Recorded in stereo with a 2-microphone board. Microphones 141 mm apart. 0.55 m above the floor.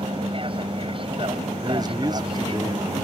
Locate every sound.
0.0 s an aircraft: 40° right (ahead or behind)
1.6 s a man speaking: 30° right (ahead or behind)